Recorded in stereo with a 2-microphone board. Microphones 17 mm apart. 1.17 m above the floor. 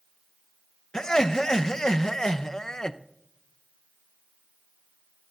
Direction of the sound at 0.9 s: 45° left (ahead or behind).